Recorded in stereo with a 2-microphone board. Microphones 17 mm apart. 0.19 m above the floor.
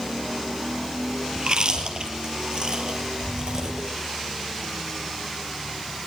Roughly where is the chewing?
Right.